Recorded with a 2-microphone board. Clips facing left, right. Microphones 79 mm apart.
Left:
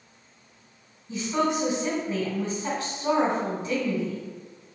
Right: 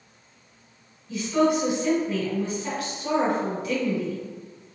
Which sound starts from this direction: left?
A woman speaking, at 1.1 s.